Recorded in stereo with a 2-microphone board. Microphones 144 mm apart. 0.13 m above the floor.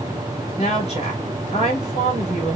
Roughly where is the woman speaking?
Left.